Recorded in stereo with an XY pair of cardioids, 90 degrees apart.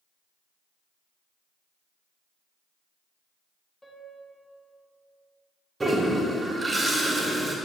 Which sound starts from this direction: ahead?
A piano, at 3.8 s.